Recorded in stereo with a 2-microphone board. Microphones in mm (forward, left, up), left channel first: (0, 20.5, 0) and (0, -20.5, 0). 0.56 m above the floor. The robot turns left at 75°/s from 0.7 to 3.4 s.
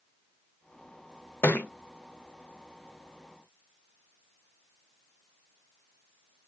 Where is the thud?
70° left (ahead or behind), 0.5 m; by 1.7 s 55° left (ahead or behind), 0.5 m.